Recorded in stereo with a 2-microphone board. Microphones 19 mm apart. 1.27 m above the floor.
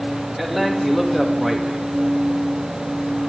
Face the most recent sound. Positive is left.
turn(degrees=0)  # may be behind; listen again after turning